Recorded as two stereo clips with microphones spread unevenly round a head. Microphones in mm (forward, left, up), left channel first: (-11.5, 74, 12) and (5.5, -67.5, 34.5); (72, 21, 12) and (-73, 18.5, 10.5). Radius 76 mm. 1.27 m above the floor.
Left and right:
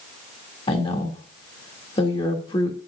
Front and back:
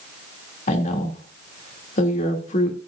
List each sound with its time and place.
0.7 s a woman speaking: 40° left, 2.5 m